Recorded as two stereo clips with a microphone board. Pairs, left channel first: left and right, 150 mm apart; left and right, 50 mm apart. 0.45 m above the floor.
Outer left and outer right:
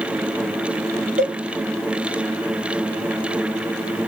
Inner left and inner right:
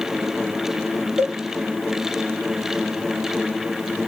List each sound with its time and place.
1.2 s a cowbell: 65° right (ahead or behind), 1.5 m